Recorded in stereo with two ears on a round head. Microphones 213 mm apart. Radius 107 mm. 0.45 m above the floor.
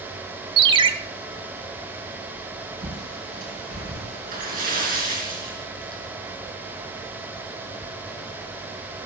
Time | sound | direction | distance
0.6 | a ringtone | 20° right (ahead or behind) | 0.7 m
2.8 | a bird | 35° right (ahead or behind) | 4.5 m
4.3 | a splash | 40° right (ahead or behind) | 3.5 m